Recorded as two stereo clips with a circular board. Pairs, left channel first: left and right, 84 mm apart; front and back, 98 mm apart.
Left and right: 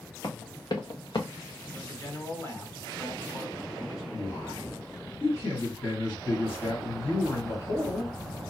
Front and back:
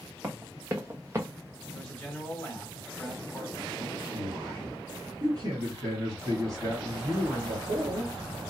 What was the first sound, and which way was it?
Running footsteps, 115° left.